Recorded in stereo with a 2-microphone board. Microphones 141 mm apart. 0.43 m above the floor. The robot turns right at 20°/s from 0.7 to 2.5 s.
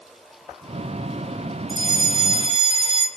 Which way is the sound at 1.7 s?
30° right (ahead or behind).